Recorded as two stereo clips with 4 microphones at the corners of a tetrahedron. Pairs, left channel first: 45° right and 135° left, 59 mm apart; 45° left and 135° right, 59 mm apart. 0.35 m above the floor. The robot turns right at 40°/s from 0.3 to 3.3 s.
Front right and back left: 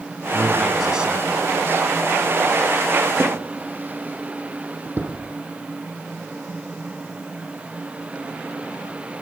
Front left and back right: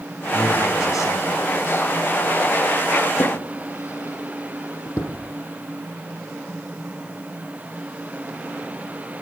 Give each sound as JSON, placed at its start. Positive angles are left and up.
{"t": 0.3, "sound": "a man speaking", "azimuth_deg": 30, "distance_m": 3.0}
{"t": 3.2, "sound": "a drawer", "azimuth_deg": 75, "distance_m": 4.5}